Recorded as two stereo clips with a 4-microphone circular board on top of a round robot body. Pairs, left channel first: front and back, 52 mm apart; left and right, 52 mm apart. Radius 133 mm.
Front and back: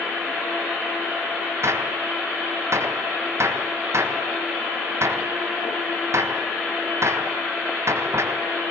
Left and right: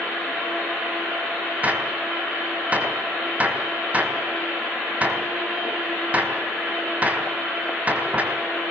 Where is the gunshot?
150° right, 4 m.